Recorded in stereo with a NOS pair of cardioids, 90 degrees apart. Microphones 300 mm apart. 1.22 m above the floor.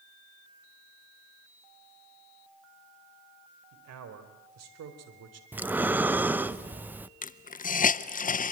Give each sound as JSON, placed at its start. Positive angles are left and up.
{"t": 3.7, "sound": "a man speaking", "azimuth_deg": -65, "distance_m": 4.5}
{"t": 5.5, "sound": "breathing", "azimuth_deg": -5, "distance_m": 0.8}
{"t": 7.2, "sound": "a hiss", "azimuth_deg": 25, "distance_m": 0.7}